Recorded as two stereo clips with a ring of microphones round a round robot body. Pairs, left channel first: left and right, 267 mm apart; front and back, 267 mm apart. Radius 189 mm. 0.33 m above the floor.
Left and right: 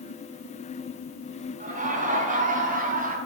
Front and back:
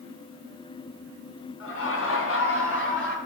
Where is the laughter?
30° right, 4 m; by 3.2 s 35° right, 3.5 m.